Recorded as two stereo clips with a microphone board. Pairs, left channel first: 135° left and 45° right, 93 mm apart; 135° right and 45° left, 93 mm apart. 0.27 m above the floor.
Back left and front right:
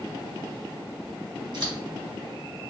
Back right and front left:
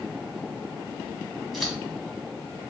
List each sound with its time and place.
1.5 s scissors: 50° right, 1.5 m